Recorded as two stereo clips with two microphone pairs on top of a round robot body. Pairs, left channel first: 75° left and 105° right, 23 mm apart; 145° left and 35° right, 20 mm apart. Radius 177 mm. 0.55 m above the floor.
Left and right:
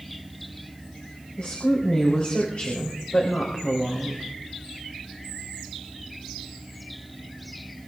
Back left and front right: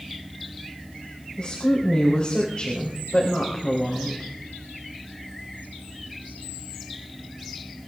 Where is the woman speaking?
95° left, 4 m.